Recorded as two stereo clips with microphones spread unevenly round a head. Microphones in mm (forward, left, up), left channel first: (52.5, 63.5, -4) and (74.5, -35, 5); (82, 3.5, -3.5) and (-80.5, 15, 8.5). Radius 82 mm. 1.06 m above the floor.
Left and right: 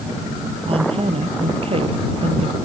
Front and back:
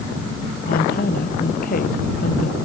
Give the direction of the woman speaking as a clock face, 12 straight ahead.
2 o'clock.